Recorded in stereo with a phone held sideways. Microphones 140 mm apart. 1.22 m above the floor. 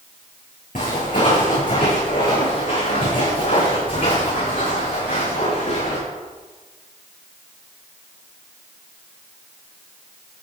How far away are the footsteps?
About 6 m.